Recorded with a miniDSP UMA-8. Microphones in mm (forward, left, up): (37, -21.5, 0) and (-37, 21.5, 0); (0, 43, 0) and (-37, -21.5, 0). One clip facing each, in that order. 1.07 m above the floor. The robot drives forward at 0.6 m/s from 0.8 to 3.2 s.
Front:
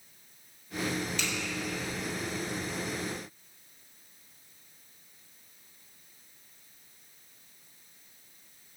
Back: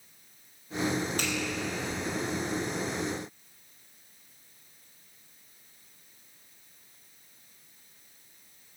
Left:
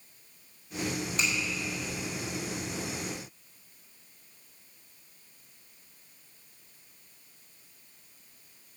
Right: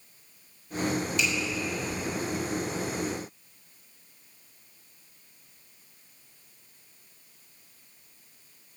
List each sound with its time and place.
1.2 s a finger snap: 105° left, 4.5 m; by 1.3 s 110° left, 4.5 m